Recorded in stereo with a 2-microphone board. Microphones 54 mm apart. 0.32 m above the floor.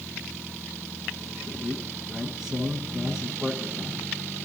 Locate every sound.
1.5 s a man speaking: 5° right (ahead or behind), 9 m